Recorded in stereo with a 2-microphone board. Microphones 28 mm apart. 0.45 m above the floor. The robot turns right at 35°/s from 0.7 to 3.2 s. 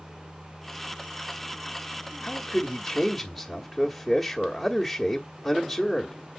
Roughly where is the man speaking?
Centre.